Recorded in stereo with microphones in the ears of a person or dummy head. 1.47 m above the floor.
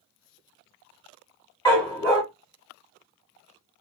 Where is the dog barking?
15° left (ahead or behind), 1.6 m.